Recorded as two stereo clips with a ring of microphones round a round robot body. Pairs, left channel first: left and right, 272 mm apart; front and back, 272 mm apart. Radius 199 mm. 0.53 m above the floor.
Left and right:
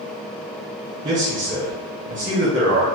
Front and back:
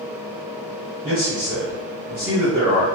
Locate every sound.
1.0 s a man speaking: 95° right, 1.0 m